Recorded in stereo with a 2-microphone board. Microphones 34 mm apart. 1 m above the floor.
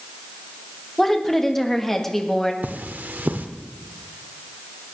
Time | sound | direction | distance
1.0 | a woman speaking | 10° left (ahead or behind) | 1.7 m
2.6 | cutlery clinking | 60° right (ahead or behind) | 1.4 m